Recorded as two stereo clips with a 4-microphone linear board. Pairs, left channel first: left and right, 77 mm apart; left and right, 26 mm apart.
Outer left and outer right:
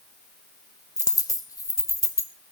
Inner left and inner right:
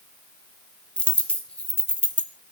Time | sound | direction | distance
1.0 | a dropped coin | 50° left (ahead or behind) | 1.4 m